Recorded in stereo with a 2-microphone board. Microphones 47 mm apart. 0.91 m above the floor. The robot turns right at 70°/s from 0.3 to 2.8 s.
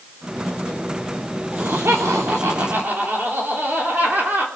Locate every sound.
1.5 s laughter: 130° right, 3 m; by 4.5 s 40° right, 3 m